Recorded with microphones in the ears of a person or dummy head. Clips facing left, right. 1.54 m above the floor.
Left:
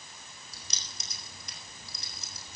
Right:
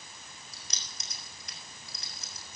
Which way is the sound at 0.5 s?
85° left.